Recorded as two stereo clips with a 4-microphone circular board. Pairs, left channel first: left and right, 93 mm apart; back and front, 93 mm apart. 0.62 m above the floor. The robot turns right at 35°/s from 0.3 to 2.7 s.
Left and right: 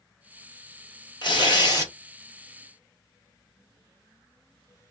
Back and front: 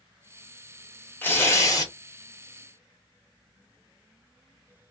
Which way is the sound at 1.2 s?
110° left.